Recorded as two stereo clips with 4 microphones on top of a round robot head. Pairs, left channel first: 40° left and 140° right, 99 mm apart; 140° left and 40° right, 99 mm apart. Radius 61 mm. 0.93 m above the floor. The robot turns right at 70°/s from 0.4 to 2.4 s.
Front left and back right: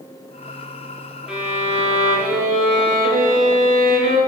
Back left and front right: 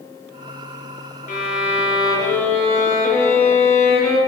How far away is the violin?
About 0.6 m.